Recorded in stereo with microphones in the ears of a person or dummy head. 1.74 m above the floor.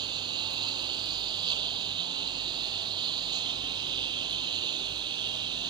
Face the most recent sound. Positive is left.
turn(degrees=-25)  # may be behind; listen again after turning